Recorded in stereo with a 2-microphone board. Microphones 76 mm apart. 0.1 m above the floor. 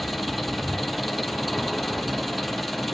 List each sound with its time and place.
0.0 s an engine running: centre (ahead or behind), 0.7 m